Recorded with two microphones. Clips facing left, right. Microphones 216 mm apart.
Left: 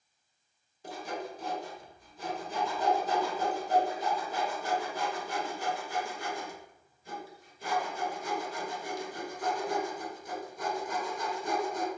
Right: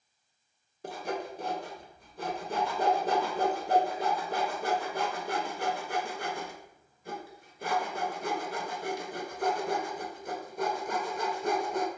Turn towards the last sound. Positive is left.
turn(degrees=-60)  # may be behind; listen again after turning